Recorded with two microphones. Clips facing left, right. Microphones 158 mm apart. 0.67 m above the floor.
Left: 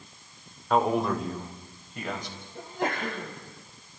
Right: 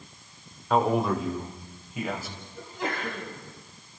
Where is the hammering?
No hammering in this recording.